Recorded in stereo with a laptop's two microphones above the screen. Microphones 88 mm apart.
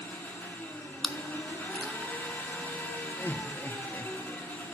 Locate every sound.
0.0 s an engine running: 20° left (ahead or behind), 1.2 m
1.0 s chewing: centre (ahead or behind), 0.6 m
3.2 s laughter: 25° left (ahead or behind), 0.8 m